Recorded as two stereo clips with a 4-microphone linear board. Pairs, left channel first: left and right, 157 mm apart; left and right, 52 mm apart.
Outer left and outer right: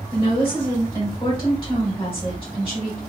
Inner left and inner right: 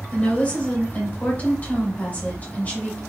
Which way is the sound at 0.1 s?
40° left (ahead or behind).